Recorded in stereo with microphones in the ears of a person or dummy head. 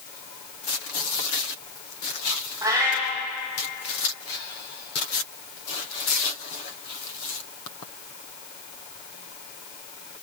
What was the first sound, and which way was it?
A cat meowing, 20° right (ahead or behind).